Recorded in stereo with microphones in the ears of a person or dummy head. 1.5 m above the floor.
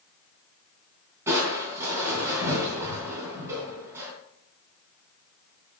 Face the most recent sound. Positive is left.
turn(degrees=-15)  # may be behind; listen again after turning